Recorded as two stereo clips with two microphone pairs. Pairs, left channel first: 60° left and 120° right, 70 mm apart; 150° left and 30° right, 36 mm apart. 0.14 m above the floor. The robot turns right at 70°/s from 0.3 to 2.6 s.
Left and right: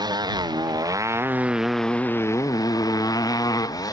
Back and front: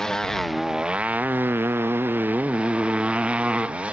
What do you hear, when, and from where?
0.0 s a motorcycle: 130° right; by 3.9 s 30° left